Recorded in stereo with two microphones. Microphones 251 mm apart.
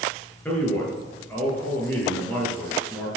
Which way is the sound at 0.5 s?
5° left (ahead or behind).